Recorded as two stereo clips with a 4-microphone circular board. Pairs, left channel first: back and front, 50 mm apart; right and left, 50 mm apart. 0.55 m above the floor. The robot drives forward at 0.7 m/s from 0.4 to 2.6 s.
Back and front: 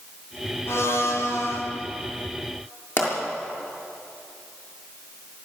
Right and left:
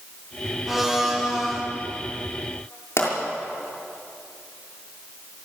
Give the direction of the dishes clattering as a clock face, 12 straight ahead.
No dishes clattering in this recording.